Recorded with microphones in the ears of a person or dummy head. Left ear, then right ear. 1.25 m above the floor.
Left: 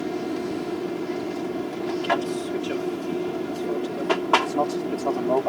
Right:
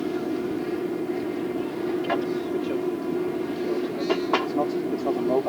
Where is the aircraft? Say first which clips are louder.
Right 1 dB; 45° left (ahead or behind).